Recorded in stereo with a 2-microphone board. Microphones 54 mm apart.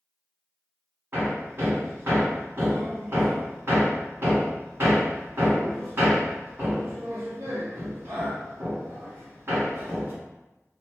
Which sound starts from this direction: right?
Hammering, at 1.1 s.